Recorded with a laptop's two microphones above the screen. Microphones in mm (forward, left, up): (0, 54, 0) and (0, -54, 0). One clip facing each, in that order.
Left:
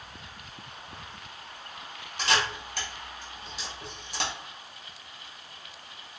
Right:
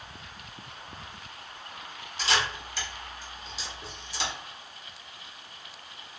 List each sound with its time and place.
2.2 s a camera shutter: 55° left (ahead or behind), 1.2 m